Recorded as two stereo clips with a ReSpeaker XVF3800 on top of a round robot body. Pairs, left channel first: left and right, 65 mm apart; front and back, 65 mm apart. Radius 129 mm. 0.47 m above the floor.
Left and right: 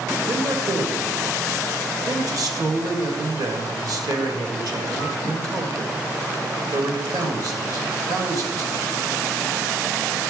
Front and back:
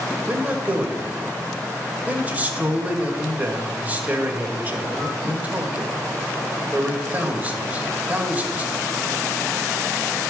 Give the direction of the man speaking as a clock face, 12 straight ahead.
4 o'clock.